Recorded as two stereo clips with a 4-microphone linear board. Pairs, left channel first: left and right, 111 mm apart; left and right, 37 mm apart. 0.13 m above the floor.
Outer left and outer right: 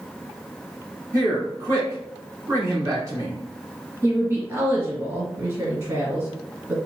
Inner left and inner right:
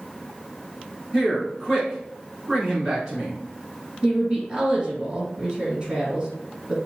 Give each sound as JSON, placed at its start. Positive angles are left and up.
{"t": 1.1, "sound": "a man speaking", "side_deg": -30, "distance_m": 1.7}
{"t": 4.0, "sound": "a woman speaking", "side_deg": -25, "distance_m": 2.0}